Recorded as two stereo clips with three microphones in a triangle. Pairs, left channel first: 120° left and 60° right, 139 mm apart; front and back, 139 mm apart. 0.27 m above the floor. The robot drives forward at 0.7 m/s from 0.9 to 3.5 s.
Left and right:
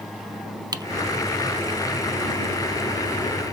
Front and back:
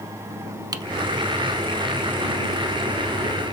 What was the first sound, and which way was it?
Typing on a keyboard, 120° right.